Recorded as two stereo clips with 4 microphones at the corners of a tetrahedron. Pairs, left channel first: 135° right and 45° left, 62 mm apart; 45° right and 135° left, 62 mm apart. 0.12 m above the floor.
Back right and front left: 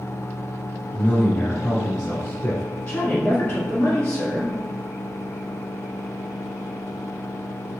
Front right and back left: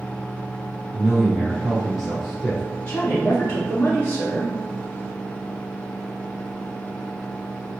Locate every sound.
0.9 s a man speaking: 135° right, 1.3 m
2.9 s a woman speaking: 95° right, 1.5 m